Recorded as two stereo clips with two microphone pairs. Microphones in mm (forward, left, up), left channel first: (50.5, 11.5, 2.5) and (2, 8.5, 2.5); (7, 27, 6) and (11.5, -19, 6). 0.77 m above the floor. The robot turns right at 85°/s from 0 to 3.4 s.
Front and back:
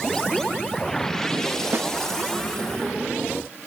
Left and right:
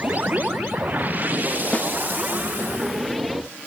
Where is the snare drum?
145° left; by 1.9 s 160° left.